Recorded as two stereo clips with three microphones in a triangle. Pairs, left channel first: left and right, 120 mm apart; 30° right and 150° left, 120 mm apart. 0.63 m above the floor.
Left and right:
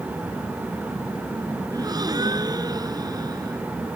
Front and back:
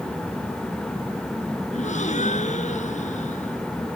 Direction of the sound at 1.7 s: 35° right.